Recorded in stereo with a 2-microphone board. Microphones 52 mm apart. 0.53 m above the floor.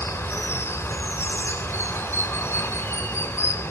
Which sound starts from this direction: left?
Running water, at 0.0 s.